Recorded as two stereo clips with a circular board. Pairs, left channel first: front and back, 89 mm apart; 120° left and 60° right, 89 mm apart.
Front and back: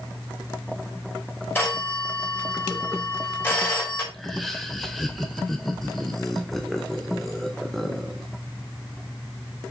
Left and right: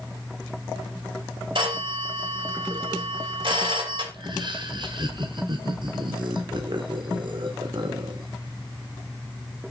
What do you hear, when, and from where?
1.6 s a phone ringing: 65° right, 2.5 m
4.1 s laughter: 85° right, 0.9 m